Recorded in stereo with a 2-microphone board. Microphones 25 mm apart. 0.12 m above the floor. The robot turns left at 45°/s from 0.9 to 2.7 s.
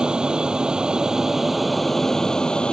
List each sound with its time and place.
0.0 s an aircraft: 140° right; by 2.8 s 140° left